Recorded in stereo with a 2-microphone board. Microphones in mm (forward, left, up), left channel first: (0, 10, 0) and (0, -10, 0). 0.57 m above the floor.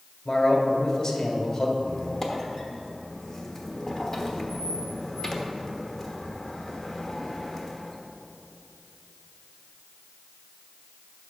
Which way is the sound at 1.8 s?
25° left (ahead or behind).